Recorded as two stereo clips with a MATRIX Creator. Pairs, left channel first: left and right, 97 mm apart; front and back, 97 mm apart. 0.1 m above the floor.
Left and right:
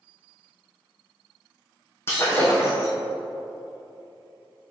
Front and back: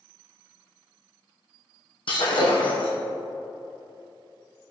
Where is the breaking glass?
30° left, 2 m.